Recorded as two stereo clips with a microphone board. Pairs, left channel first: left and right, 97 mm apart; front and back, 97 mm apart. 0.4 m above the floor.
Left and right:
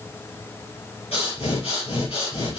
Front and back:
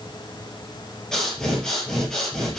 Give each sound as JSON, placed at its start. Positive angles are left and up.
{"t": 1.1, "sound": "breathing", "azimuth_deg": 85, "distance_m": 4.0}